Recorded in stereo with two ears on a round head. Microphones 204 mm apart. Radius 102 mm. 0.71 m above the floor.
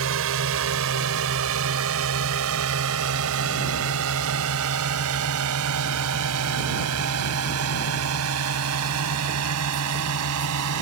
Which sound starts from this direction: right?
A drone, at 0.0 s.